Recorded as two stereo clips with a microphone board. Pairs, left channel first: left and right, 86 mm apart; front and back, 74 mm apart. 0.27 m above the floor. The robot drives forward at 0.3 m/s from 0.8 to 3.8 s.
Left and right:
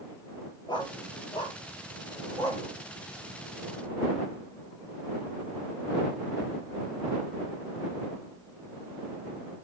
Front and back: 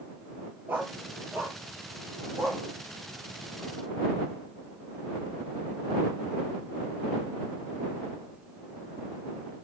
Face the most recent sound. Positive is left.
turn(degrees=130)